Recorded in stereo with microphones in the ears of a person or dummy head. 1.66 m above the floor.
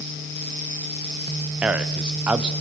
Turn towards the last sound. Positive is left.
turn(degrees=-5)  # may be behind; listen again after turning